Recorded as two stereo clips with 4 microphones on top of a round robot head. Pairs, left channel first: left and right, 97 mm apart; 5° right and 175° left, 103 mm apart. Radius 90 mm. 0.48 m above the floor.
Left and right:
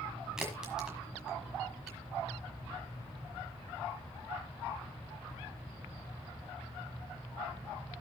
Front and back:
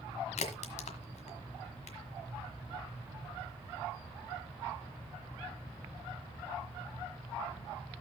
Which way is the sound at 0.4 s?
5° right.